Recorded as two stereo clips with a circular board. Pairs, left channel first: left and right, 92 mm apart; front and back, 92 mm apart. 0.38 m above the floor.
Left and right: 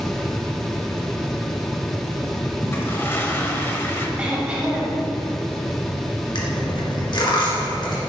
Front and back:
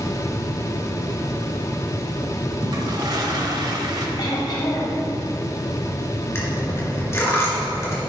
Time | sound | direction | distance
2.6 | a toilet flushing | 150° left | 1.0 m
4.2 | throat clearing | 15° right | 2.0 m
6.3 | a dropped coin | 60° left | 2 m